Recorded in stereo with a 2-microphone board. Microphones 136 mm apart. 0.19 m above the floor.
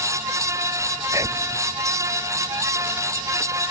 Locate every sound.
1.1 s whispering: 25° right (ahead or behind)